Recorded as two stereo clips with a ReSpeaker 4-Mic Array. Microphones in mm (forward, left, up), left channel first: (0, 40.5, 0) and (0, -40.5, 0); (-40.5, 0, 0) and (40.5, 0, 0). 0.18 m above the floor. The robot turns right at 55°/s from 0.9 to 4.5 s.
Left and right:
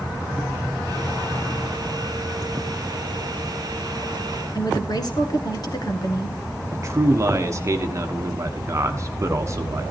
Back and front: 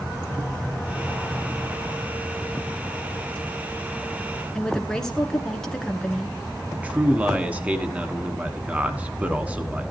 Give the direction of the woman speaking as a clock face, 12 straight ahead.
9 o'clock.